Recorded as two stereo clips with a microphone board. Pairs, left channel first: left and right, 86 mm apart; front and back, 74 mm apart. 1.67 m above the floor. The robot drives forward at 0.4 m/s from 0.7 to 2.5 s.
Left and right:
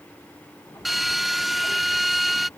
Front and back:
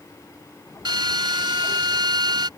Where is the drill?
Straight behind.